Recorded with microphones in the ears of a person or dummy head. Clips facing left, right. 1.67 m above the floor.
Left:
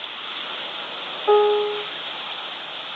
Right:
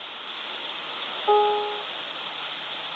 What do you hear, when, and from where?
1.3 s a piano: 25° left (ahead or behind), 0.6 m